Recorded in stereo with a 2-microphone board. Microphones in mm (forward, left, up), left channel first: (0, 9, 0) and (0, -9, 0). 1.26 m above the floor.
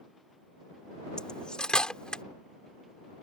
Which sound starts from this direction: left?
Cutlery clinking, at 1.2 s.